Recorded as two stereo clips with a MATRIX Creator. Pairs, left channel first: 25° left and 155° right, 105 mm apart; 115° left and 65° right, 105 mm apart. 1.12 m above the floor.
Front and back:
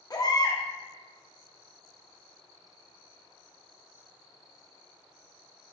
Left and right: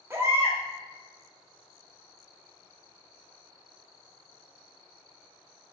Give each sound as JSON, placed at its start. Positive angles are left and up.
{"t": 0.1, "sound": "a baby crying", "azimuth_deg": -10, "distance_m": 0.7}